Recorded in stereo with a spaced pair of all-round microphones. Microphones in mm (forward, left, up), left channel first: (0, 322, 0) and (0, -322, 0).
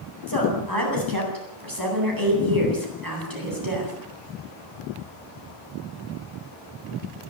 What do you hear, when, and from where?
0.3 s a woman speaking: 30° right (ahead or behind), 9 m